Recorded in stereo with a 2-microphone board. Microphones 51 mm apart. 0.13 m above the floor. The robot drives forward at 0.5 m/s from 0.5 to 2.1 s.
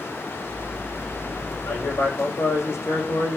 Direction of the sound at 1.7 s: 70° left (ahead or behind).